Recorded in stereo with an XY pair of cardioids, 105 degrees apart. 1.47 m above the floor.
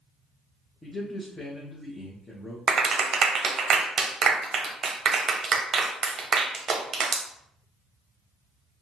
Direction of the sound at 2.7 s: 50° right.